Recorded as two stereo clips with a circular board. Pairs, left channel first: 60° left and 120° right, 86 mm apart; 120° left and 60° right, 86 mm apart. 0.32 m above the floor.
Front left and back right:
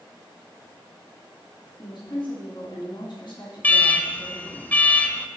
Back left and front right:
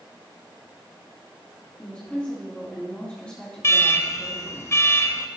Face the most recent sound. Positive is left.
turn(degrees=110)